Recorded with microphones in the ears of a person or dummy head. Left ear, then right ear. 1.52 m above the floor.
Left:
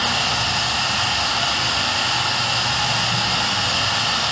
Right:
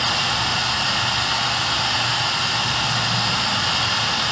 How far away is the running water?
About 1.3 m.